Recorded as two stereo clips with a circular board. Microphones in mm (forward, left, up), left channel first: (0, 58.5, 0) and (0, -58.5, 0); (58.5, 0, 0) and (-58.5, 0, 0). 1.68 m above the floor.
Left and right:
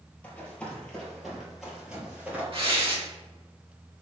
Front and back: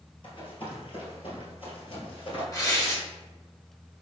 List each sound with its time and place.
0.2 s running footsteps: 15° left, 2.5 m; by 2.4 s 15° right, 2.5 m
2.5 s tearing paper: 55° right, 1.8 m